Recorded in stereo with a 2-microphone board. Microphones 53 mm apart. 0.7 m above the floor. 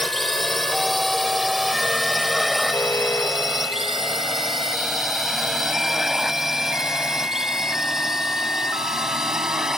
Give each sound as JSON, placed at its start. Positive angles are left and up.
{"t": 0.0, "sound": "a drone", "side_deg": 0}
{"t": 2.7, "sound": "an alarm", "side_deg": 50}